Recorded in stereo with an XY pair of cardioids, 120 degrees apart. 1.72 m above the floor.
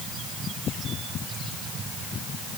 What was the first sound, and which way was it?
Only background noise.